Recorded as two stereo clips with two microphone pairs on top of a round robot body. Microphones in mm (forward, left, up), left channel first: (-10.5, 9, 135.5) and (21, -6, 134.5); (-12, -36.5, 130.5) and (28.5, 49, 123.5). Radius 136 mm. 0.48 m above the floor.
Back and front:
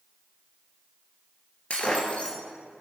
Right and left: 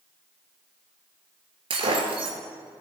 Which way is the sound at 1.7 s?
95° left.